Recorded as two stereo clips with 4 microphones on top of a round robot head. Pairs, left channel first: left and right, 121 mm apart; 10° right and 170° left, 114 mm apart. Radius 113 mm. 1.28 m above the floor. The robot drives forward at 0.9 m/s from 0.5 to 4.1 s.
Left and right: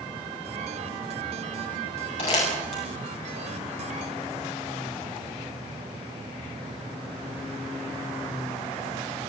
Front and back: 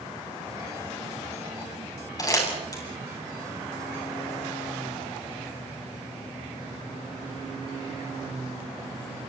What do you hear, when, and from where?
2.2 s crumpling: 45° left, 8.5 m